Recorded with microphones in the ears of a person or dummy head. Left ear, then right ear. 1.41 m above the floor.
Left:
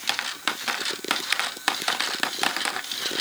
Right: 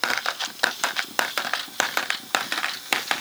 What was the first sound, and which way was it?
Only background noise.